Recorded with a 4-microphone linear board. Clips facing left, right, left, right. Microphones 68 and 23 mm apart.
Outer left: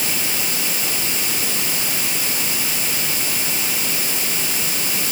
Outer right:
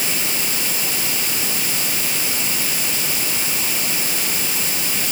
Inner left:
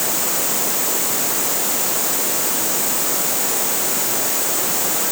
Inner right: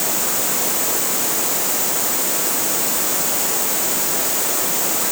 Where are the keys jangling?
No keys jangling in this recording.